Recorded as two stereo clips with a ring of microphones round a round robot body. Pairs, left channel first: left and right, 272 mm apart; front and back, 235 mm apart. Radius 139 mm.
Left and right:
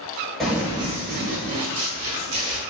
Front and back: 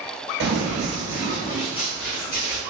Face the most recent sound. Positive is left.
turn(degrees=-55)